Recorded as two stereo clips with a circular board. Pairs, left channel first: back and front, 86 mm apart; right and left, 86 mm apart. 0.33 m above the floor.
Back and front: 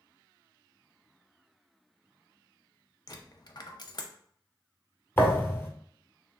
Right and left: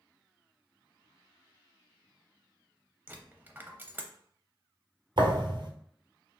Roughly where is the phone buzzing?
I don't hear a phone buzzing.